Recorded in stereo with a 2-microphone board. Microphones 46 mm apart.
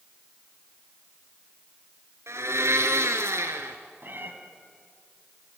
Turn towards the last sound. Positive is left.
turn(degrees=-50)  # may be behind; listen again after turning